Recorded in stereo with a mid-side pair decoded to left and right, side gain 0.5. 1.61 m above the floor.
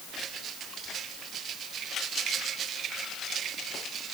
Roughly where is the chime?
No chime in this recording.